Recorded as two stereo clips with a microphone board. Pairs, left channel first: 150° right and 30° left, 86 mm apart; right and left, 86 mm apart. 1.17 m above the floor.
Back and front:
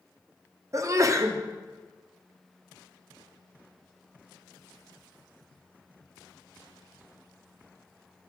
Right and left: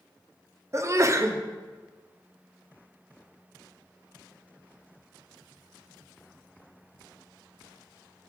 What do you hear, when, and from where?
0.7 s a sneeze: 55° left, 0.5 m